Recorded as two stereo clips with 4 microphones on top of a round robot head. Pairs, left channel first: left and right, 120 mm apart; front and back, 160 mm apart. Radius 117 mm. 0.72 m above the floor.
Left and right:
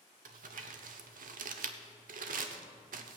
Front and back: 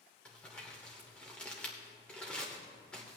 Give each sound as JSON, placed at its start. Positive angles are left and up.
{"t": 0.2, "sound": "crumpling", "azimuth_deg": -85, "distance_m": 0.7}